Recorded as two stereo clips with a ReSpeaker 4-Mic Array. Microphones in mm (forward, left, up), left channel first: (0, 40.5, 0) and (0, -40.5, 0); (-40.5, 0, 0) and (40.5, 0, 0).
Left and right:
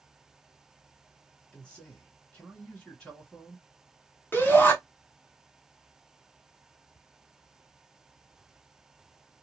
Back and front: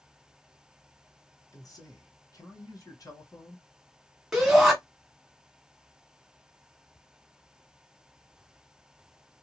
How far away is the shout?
About 1.2 m.